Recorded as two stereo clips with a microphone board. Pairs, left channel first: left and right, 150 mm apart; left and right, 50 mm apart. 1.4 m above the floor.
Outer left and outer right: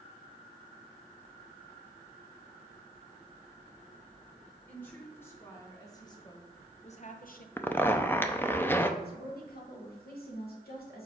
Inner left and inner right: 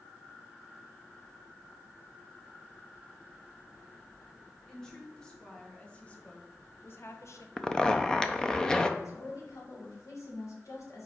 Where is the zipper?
15° left (ahead or behind), 0.5 m.